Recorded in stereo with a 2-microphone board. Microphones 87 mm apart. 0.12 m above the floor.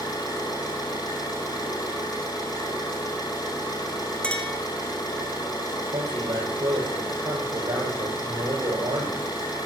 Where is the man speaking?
65° right (ahead or behind), 4 m.